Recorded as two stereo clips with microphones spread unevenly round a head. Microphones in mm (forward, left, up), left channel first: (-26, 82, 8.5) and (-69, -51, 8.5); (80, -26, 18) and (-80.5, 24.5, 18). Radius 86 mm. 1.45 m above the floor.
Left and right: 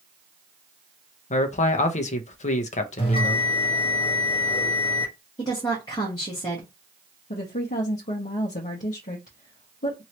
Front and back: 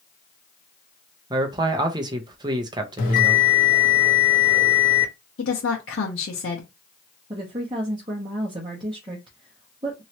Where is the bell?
15° left, 1.0 m.